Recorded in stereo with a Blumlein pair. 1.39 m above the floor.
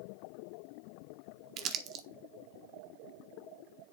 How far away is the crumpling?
About 0.7 m.